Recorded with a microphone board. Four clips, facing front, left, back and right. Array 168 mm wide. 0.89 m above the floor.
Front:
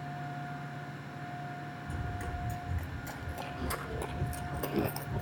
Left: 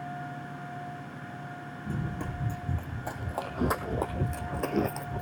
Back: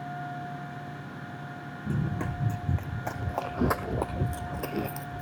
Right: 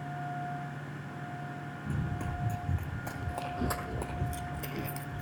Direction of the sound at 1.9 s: 170° left.